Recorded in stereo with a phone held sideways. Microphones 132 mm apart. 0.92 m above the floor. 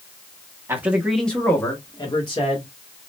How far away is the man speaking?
About 0.9 m.